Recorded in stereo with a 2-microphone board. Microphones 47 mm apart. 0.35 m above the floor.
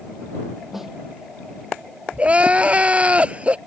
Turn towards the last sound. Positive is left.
turn(degrees=-25)  # may be behind; listen again after turning